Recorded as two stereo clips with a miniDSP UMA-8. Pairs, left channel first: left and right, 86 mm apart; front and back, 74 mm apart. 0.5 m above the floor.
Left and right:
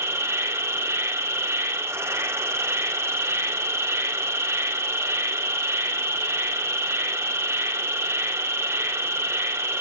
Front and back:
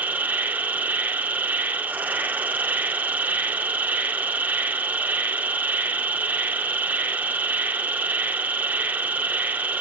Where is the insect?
125° right, 0.7 m.